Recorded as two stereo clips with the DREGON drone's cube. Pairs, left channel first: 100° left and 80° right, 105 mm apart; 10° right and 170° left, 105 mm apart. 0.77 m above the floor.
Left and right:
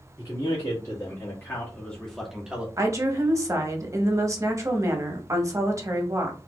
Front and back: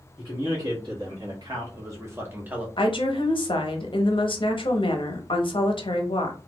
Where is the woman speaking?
30° right, 0.7 m.